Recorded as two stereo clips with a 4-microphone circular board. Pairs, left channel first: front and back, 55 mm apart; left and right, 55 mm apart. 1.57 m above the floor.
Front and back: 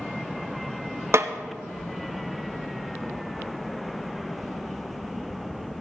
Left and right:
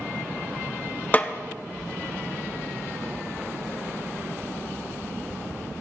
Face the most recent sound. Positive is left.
turn(degrees=145)